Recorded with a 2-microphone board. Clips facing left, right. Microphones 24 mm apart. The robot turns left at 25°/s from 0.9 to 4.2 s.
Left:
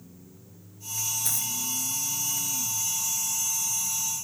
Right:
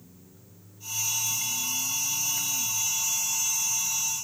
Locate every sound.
1.2 s a dropped coin: 85° left